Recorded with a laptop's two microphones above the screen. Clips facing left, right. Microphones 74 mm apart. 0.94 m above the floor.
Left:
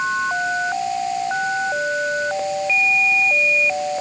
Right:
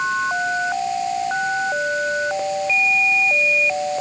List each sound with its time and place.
Only background noise.